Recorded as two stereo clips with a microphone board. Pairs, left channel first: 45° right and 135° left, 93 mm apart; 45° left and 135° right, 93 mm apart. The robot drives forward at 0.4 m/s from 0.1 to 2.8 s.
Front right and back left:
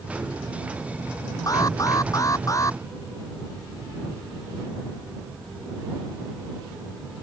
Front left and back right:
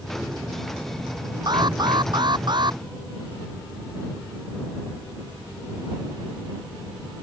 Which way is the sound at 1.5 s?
95° right.